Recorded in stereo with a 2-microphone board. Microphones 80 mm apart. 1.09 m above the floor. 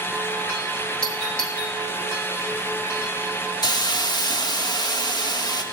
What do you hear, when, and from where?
1.0 s a doorbell: 10° left (ahead or behind), 2.0 m
3.6 s a hiss: 55° left (ahead or behind), 1.3 m